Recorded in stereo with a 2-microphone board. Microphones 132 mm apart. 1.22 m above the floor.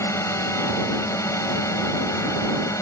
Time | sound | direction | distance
0.0 | a drone | 20° left (ahead or behind) | ?